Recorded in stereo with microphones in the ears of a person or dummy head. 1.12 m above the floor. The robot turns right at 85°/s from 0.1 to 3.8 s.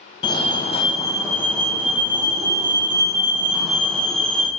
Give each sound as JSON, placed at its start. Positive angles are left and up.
{"t": 0.2, "sound": "a fire alarm", "side_deg": 20, "distance_m": 1.0}